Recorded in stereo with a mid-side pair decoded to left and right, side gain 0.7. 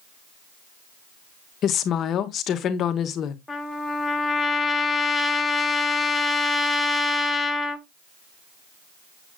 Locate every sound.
1.6 s a woman speaking: 45° left, 1.3 m
3.5 s a trumpet: 10° left, 1.5 m